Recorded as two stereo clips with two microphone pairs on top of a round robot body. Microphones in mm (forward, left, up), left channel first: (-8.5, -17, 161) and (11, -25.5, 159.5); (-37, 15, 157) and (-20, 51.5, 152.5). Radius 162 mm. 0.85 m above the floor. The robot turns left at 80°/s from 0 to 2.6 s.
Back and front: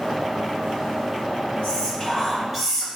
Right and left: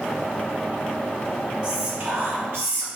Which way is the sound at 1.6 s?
135° left.